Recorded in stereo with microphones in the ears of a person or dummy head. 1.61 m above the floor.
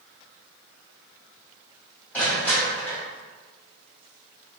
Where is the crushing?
15° left (ahead or behind), 1.0 m.